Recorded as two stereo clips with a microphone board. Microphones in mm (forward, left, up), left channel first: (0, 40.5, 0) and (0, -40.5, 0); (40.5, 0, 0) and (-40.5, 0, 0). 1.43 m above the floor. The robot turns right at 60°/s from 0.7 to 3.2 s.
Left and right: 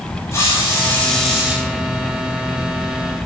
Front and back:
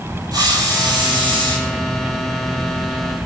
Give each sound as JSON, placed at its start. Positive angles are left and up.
{"t": 0.3, "sound": "a hiss", "azimuth_deg": 140, "distance_m": 9.5}